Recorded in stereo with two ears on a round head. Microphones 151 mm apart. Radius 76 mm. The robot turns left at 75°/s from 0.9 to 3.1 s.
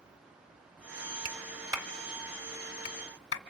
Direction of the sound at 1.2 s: 50° right (ahead or behind).